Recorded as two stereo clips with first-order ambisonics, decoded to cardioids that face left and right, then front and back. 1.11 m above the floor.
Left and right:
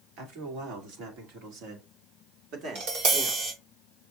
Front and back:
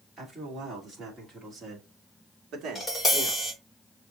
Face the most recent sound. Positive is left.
turn(degrees=-80)